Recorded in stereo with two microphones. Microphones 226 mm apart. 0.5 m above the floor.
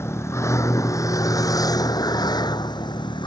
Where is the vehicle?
10° left (ahead or behind); by 3.3 s 20° left (ahead or behind).